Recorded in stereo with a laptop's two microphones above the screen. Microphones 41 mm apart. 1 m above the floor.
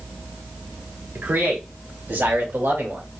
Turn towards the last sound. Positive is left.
turn(degrees=-75)  # may be behind; listen again after turning